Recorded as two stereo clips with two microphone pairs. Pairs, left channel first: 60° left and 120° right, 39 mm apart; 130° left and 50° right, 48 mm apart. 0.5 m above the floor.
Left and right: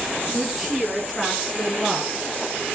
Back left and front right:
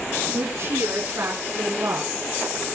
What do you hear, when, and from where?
0.3 s a woman speaking: 30° right, 7 m; by 2.1 s 5° right, 5.5 m